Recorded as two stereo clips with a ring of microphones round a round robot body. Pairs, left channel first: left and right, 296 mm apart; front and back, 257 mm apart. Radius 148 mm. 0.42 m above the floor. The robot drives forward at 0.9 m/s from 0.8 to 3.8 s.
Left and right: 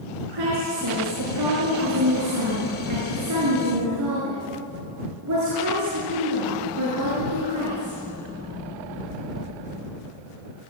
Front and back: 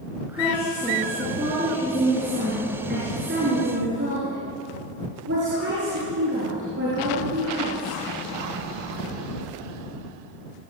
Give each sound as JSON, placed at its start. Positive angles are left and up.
{"t": 0.3, "sound": "a woman speaking", "azimuth_deg": -95, "distance_m": 5.0}